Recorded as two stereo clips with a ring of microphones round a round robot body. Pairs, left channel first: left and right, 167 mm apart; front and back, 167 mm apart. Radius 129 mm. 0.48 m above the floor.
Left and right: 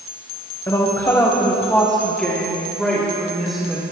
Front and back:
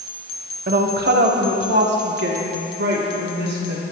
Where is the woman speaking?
165° left, 1.9 m; by 3.8 s straight behind, 5 m.